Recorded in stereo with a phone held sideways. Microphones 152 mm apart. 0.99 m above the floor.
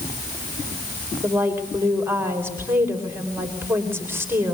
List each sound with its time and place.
1.2 s a woman speaking: 15° right (ahead or behind), 5 m